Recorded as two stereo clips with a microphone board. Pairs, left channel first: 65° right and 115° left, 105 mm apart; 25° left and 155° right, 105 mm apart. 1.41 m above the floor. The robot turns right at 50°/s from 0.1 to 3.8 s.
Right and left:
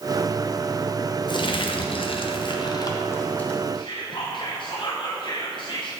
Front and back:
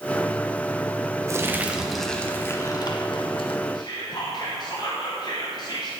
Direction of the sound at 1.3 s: 100° right.